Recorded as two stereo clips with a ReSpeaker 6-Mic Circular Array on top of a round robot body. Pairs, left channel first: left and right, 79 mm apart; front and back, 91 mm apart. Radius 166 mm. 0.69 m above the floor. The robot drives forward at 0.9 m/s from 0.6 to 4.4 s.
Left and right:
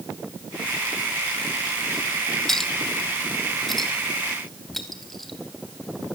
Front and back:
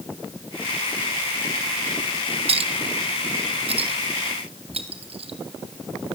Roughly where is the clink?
Behind.